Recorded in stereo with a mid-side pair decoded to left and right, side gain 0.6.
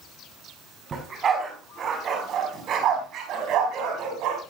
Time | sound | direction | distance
0.9 | a dog barking | 40° right | 5.5 m